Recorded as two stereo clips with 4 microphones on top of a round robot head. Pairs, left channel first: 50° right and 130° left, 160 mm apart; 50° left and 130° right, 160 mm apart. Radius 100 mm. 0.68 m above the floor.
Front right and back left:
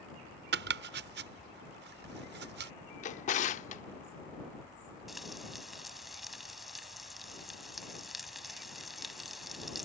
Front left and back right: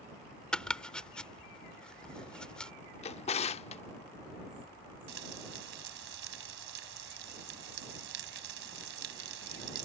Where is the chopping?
135° left.